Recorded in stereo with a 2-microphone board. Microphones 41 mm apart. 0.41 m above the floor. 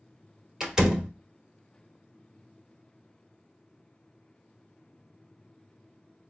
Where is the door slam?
15° right (ahead or behind), 1.0 m.